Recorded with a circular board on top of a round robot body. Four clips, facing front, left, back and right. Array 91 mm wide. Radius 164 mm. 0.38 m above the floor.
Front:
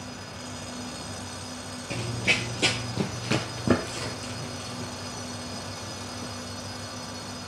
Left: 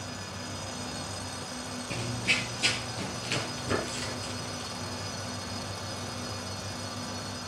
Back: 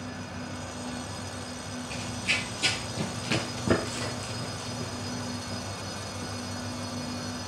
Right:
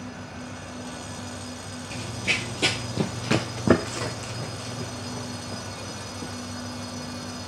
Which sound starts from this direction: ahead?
Running footsteps, at 1.9 s.